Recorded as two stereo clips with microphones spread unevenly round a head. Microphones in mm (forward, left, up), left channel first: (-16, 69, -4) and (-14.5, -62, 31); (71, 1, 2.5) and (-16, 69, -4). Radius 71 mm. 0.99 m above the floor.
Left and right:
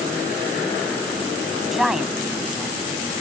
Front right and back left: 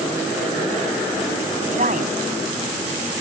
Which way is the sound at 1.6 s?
175° right.